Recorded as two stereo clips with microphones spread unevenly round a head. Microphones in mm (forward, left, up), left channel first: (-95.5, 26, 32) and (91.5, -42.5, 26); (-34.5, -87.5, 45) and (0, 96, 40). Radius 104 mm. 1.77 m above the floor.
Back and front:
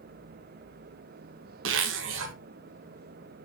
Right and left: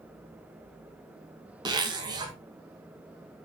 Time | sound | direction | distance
1.6 | a zipper | 10° left | 1.8 m